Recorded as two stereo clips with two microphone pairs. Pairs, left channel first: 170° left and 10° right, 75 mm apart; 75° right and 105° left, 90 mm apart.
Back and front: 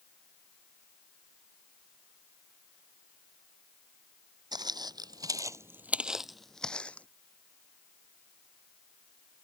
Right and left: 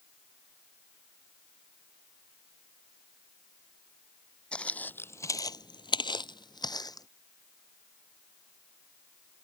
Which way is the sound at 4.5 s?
Straight ahead.